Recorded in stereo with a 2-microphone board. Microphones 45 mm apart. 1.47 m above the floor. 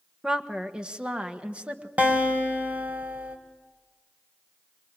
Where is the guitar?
35° right (ahead or behind), 3 m.